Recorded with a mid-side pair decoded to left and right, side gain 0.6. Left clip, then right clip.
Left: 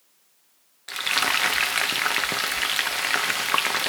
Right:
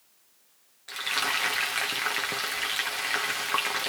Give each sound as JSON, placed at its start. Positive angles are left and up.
{"t": 0.9, "sound": "frying", "azimuth_deg": 35, "distance_m": 0.9}